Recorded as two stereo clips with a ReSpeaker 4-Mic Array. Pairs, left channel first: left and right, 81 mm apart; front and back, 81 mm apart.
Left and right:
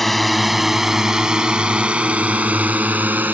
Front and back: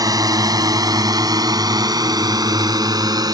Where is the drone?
175° left; by 3.4 s 155° right.